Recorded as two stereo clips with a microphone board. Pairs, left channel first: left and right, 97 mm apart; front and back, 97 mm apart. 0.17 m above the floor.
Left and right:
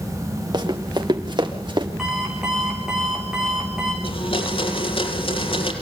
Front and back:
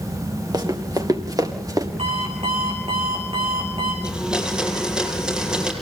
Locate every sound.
0.5 s running footsteps: 135° right, 4 m; by 1.9 s 130° right, 5 m
2.0 s an alarm clock: 175° right, 8 m
4.0 s a blender: 100° left, 5.5 m